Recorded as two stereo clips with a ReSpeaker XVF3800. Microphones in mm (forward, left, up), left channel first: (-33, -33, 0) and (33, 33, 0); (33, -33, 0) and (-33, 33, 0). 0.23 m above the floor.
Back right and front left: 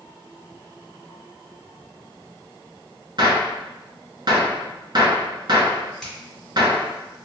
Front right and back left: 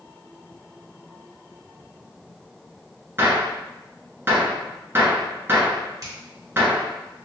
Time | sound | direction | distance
3.2 | a gunshot | 75° left | 1.0 m
6.0 | a finger snap | 140° left | 1.6 m